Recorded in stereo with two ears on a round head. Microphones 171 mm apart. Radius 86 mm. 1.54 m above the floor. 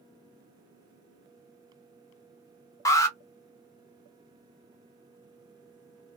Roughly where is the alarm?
Centre.